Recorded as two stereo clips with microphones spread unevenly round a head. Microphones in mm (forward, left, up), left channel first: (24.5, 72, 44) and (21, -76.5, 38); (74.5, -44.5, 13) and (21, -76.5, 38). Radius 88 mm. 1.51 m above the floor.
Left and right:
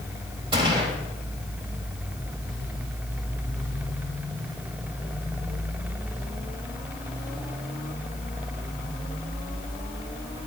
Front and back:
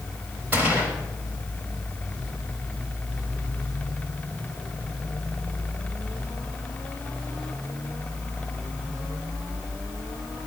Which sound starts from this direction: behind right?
A gunshot, at 0.5 s.